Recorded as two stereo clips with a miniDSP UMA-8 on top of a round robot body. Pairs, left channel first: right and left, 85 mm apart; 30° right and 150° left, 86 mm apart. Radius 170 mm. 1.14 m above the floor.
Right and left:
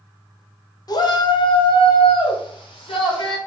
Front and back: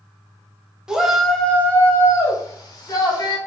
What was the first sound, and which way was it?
A shout, 130° right.